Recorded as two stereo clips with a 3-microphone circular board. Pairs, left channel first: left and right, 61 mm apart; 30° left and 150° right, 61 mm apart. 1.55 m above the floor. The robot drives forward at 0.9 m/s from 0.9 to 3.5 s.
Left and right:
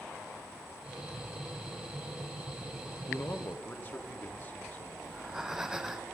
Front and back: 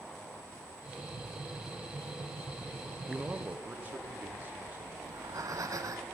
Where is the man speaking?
135° left, 0.6 m; by 4.9 s 150° left, 0.9 m.